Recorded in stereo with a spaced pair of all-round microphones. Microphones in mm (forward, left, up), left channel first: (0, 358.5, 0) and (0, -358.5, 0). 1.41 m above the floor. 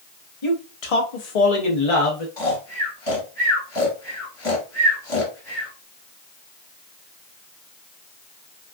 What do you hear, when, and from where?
0.4 s a man speaking: 45° left (ahead or behind), 0.8 m
2.4 s snoring: 50° left (ahead or behind), 1.3 m